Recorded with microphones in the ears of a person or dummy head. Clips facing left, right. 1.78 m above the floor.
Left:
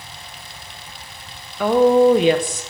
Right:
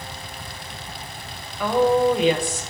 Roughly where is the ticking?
I don't hear ticking.